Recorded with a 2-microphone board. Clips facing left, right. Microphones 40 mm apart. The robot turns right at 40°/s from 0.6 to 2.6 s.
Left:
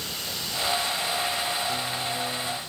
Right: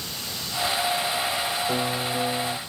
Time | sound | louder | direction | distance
1.7 | a piano | right 3 dB | 55° right | ?